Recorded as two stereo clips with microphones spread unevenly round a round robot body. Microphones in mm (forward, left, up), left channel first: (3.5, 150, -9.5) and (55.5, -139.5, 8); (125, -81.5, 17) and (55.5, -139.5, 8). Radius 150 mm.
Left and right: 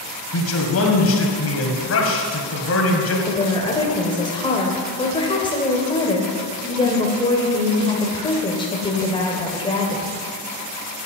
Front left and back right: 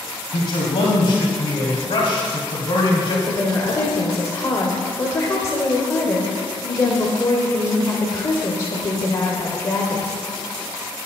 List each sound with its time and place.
0.3 s a man speaking: 75° left, 1.9 m
3.3 s a woman speaking: 55° left, 1.2 m